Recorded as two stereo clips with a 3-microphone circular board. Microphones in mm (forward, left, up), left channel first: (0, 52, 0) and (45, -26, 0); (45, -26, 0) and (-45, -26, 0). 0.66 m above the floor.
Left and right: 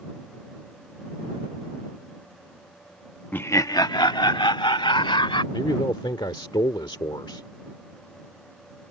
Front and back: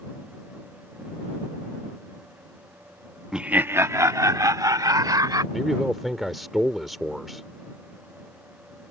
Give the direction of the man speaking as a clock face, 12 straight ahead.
9 o'clock.